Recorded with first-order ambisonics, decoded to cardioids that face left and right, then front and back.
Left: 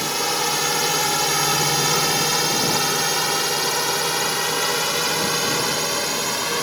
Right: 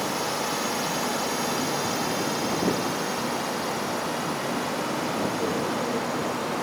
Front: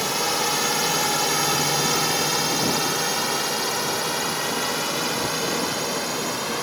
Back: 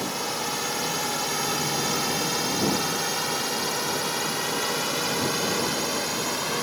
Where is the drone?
50° left; by 6.6 s 90° left.